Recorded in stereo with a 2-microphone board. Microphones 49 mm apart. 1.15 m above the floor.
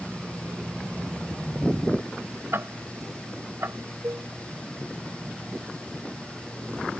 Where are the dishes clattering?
65° right (ahead or behind).